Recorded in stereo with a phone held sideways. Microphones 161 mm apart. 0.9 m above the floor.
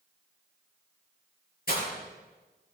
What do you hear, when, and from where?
1.7 s breaking glass: 75° left (ahead or behind), 6 m